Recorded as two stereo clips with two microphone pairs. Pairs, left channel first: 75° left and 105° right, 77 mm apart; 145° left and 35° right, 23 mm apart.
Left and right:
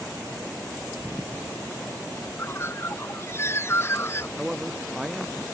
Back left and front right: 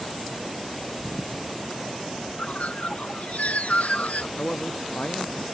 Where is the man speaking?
165° left.